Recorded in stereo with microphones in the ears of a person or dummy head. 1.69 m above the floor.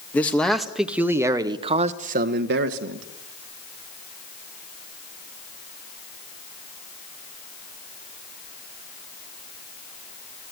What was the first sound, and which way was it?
A man speaking, 10° left (ahead or behind).